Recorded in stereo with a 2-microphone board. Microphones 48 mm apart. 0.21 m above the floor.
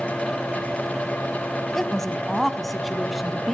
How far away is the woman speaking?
About 1.0 m.